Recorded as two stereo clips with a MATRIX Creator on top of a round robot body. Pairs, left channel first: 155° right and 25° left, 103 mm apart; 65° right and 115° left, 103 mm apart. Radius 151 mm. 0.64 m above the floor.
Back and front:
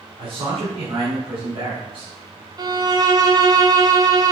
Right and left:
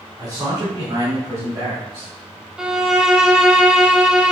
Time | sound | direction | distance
0.2 | a man speaking | 60° left | 2 m
2.6 | a violin | 30° left | 1.2 m